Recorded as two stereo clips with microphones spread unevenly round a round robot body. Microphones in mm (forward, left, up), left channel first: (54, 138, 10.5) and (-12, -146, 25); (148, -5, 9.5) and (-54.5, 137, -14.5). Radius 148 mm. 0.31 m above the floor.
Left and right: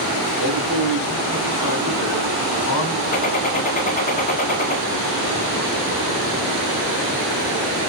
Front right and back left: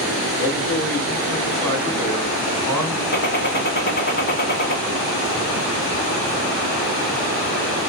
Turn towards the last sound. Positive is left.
turn(degrees=15)